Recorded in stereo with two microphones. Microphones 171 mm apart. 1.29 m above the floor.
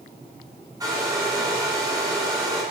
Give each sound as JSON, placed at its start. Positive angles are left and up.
{"t": 0.8, "sound": "a hair dryer", "side_deg": -20, "distance_m": 7.0}